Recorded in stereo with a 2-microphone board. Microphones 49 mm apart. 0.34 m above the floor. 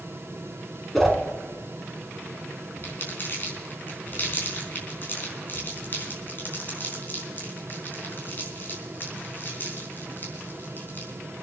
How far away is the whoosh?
About 2.5 m.